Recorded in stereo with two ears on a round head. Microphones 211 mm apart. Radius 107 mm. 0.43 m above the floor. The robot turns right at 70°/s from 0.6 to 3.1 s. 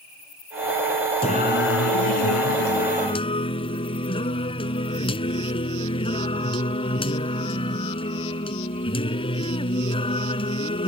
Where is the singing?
25° left; by 10.9 s 155° left.